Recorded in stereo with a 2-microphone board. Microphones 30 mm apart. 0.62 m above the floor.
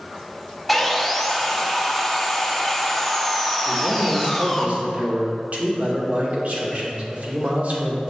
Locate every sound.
0.7 s sawing: 5° left (ahead or behind), 0.7 m
3.7 s a man speaking: 55° right (ahead or behind), 1.7 m